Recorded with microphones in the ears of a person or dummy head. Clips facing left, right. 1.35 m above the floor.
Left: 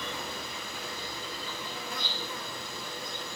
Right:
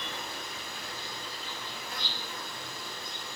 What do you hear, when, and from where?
0.0 s an insect: 65° left (ahead or behind), 1.3 m